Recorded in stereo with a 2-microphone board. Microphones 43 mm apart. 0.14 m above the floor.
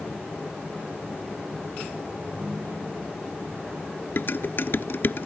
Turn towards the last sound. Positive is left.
turn(degrees=55)  # may be behind; listen again after turning